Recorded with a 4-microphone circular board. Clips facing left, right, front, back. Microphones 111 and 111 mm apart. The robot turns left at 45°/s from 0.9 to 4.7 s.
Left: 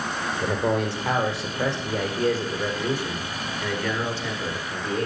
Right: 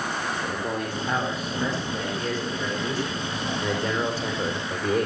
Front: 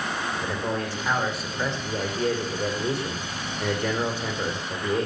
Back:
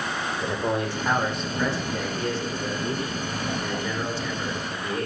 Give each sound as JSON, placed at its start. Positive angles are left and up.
{"t": 0.4, "sound": "a man speaking", "azimuth_deg": 105, "distance_m": 6.5}